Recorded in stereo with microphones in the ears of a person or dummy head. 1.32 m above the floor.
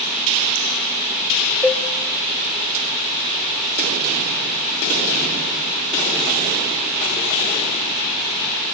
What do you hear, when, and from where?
1.6 s a cowbell: 10° left (ahead or behind), 0.9 m